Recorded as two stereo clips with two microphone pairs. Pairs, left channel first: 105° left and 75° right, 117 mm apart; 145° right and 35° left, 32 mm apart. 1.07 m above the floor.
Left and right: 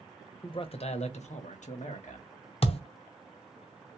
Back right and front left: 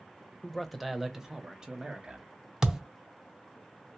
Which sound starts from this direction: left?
A thud, at 2.6 s.